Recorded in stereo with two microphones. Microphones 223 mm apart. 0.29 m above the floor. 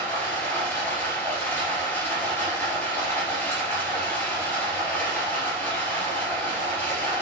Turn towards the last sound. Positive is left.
turn(degrees=10)  # may be behind; listen again after turning